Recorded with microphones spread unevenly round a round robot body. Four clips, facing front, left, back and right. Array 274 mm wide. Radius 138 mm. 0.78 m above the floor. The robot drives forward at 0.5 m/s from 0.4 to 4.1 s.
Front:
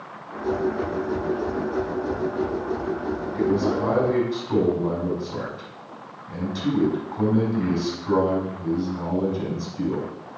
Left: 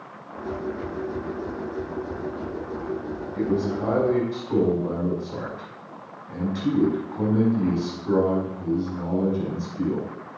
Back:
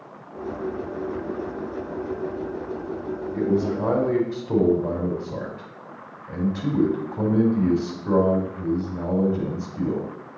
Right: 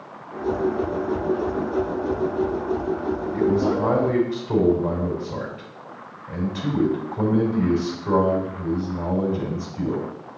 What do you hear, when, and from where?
3.3 s a man speaking: 150° right, 3.5 m